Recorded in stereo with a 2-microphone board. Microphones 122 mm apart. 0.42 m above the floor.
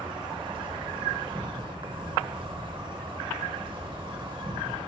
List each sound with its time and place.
0.0 s an insect: 40° right (ahead or behind), 0.8 m